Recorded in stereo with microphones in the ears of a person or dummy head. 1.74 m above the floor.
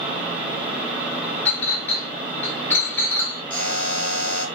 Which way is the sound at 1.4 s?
10° left (ahead or behind).